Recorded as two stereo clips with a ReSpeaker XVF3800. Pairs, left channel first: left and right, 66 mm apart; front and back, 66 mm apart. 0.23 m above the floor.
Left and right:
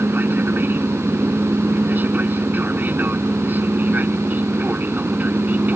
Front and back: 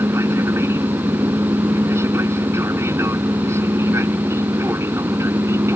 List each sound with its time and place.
0.0 s an aircraft: 145° right; by 5.8 s 150° right